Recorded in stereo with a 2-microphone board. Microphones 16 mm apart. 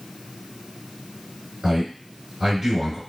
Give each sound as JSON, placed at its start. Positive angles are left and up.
{"t": 1.6, "sound": "a man speaking", "side_deg": -25, "distance_m": 1.8}